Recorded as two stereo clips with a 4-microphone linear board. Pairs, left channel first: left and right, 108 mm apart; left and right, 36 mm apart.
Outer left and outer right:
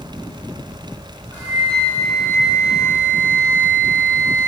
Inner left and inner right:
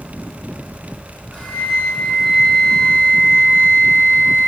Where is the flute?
20° left (ahead or behind), 1.2 m.